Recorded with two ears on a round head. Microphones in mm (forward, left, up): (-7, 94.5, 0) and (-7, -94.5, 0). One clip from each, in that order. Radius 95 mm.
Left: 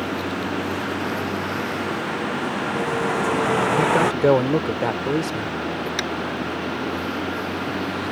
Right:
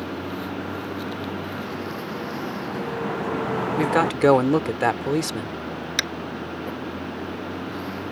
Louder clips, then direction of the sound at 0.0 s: Left 5 dB; 80° left.